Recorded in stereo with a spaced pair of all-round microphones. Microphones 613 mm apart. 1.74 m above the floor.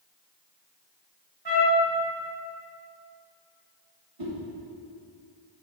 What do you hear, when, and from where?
1.4 s a trumpet: 40° right (ahead or behind), 1.6 m
4.2 s a whoosh: 60° right (ahead or behind), 1.9 m